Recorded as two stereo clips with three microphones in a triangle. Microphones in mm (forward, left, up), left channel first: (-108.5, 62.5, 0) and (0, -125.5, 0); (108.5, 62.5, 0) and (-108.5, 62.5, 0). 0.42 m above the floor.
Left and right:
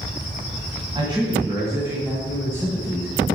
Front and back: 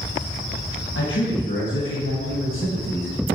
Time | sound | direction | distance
0.9 | a man speaking | 5° left | 2.5 m